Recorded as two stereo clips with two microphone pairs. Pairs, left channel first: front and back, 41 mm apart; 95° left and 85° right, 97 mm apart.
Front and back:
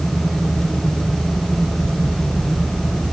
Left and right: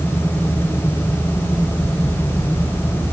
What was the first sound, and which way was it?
Only background noise.